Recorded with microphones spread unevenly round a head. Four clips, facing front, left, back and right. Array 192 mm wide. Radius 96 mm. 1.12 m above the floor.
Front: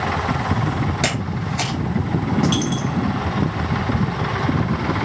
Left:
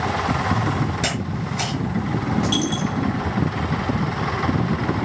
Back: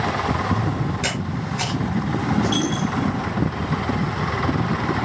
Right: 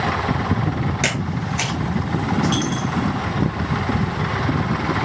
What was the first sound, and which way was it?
A camera shutter, 15° right.